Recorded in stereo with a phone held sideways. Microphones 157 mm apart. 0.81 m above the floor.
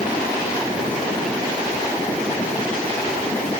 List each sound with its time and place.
Only background noise.